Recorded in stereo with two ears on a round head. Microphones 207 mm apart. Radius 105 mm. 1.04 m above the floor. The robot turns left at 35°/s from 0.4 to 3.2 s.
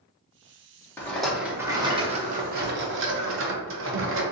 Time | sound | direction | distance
1.0 | a rattle | 10° left | 0.9 m